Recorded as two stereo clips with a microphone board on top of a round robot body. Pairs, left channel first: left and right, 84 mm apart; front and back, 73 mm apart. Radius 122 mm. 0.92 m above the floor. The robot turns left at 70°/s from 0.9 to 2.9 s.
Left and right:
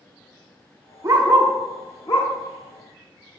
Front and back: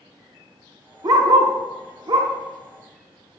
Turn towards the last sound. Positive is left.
turn(degrees=80)